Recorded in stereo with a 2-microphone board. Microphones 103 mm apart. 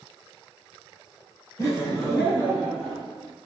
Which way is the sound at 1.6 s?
35° left (ahead or behind).